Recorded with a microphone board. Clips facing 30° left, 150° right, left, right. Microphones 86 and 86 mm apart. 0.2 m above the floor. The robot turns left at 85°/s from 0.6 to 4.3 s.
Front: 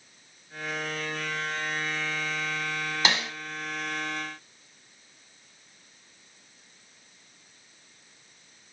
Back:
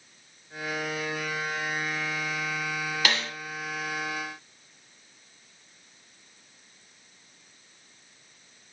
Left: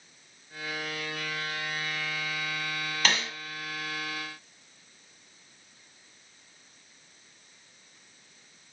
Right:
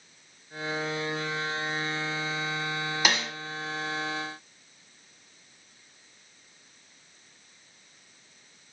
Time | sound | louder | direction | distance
3.0 | a snare drum | front 2 dB, right 1 dB | 20° right | 0.7 m